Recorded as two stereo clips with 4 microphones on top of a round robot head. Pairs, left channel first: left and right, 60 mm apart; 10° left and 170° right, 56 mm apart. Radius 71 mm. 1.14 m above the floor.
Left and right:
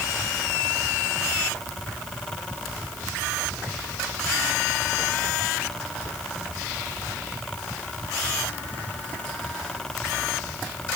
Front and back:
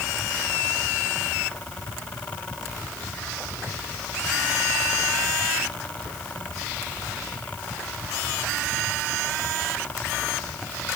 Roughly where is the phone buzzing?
I don't hear a phone buzzing.